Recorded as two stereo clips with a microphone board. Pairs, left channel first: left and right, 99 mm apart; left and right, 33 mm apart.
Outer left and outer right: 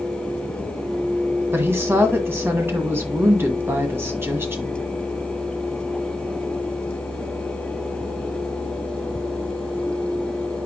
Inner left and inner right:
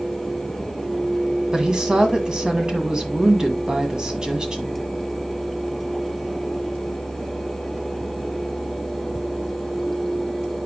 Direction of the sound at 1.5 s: 25° right (ahead or behind).